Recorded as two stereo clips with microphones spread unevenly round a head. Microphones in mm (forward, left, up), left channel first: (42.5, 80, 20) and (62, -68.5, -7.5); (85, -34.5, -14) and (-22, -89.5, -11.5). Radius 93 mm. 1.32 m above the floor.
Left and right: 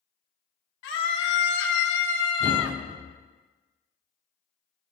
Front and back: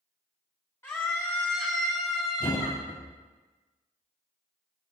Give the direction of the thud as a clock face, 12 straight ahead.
1 o'clock.